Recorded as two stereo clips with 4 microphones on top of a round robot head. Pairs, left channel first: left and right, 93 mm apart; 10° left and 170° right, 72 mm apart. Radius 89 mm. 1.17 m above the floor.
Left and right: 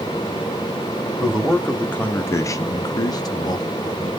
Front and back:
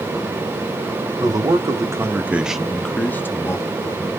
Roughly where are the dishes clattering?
No dishes clattering in this recording.